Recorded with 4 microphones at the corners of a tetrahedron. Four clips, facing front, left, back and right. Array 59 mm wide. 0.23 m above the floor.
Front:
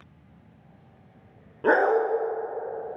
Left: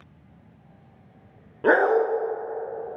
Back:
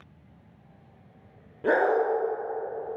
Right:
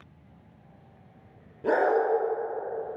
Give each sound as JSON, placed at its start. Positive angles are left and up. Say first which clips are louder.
{"t": 1.6, "sound": "a dog barking", "louder": "left 5 dB, front 2 dB", "azimuth_deg": 70, "distance_m": 0.9}